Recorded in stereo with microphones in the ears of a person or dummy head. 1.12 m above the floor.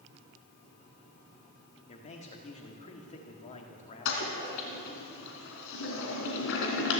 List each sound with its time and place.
1.9 s a man speaking: 30° left (ahead or behind), 1.8 m
4.0 s a toilet flushing: 65° left (ahead or behind), 3 m